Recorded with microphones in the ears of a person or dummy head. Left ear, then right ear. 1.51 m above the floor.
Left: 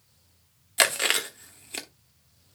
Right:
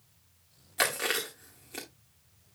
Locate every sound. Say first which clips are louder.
0.8 s chewing: left 6 dB; 30° left (ahead or behind), 1.2 m